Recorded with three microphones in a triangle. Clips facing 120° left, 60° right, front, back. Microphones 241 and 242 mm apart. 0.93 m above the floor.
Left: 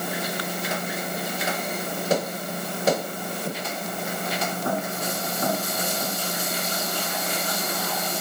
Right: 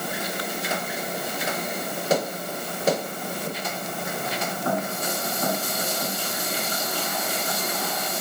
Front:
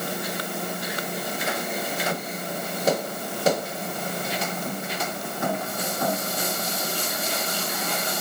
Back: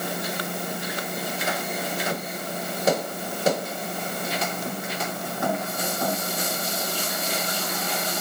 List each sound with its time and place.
Only background noise.